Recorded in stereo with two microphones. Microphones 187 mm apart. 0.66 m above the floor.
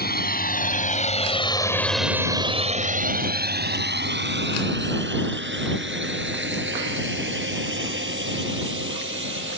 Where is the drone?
55° left (ahead or behind); by 9.6 s 85° right.